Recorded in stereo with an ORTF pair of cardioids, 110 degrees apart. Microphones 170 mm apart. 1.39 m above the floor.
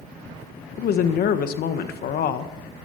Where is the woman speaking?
60° left, 1.3 m.